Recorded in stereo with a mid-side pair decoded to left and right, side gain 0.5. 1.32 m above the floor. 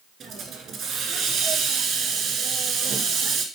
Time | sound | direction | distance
0.2 | a hiss | 60° right | 1.8 m